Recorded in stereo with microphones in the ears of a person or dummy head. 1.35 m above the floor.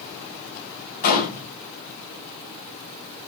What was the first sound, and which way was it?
A gunshot, 50° left (ahead or behind).